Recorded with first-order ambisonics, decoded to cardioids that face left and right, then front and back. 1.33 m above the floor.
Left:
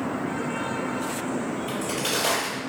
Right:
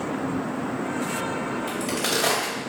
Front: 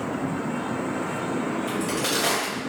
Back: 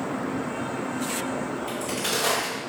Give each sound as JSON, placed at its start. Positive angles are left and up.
{"t": 1.7, "sound": "a crack", "azimuth_deg": -75, "distance_m": 1.7}